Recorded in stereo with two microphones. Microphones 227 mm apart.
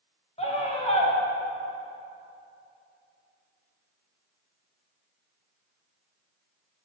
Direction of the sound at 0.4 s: 30° left (ahead or behind).